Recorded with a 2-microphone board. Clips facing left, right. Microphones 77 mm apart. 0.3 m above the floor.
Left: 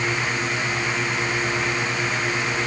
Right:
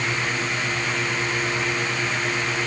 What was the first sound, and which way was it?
Only background noise.